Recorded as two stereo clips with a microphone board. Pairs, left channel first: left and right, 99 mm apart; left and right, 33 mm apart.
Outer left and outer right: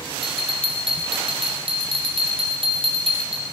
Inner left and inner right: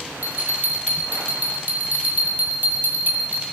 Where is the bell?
60° right (ahead or behind), 2.5 m.